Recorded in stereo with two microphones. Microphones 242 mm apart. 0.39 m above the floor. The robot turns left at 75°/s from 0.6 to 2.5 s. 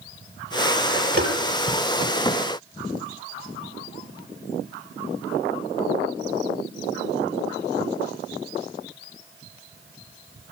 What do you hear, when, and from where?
1.2 s tapping: 40° right (ahead or behind), 4 m; by 1.3 s 55° right (ahead or behind), 4 m